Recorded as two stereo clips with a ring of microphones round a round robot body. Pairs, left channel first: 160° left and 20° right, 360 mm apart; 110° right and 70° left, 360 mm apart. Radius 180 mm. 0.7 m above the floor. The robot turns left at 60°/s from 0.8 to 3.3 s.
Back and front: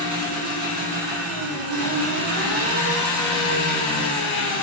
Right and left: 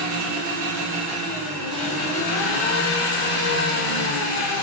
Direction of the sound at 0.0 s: 20° left.